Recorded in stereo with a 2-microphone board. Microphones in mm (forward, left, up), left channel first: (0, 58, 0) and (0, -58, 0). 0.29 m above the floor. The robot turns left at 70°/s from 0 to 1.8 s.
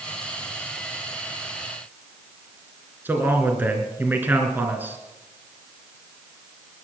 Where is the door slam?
No door slam in this recording.